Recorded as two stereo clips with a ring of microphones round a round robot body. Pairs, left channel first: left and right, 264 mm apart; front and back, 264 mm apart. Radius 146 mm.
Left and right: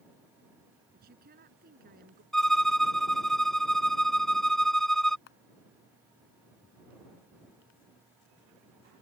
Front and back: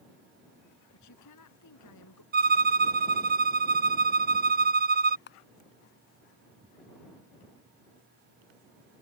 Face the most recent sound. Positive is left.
turn(degrees=40)